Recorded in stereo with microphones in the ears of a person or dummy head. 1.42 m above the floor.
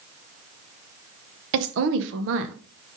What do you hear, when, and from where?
1.5 s a woman speaking: 65° right (ahead or behind), 1.0 m